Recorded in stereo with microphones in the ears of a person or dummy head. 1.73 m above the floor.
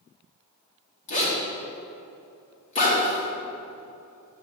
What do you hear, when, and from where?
1.1 s a zipper: 35° left (ahead or behind), 1.4 m